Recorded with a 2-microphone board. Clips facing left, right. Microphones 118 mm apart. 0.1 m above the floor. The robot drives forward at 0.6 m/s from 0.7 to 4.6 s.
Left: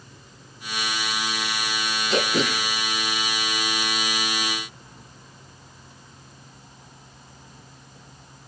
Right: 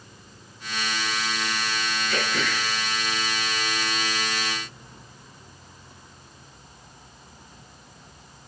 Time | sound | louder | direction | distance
2.1 | throat clearing | left 6 dB | 30° left (ahead or behind) | 0.6 m